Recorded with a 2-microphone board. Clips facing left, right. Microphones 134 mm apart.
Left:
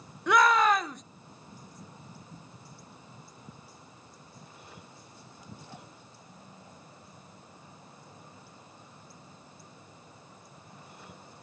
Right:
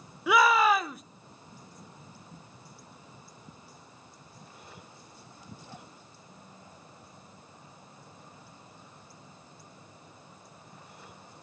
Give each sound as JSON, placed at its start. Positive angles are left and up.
{"t": 0.3, "sound": "a shout", "side_deg": -5, "distance_m": 0.9}